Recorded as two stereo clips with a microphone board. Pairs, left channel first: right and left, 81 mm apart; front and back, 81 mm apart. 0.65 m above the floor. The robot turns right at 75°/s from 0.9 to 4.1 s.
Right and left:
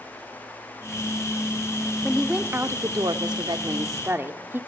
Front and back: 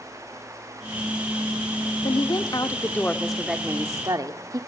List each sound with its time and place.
2.0 s a woman speaking: 5° right, 1.2 m; by 4.6 s 150° left, 1.2 m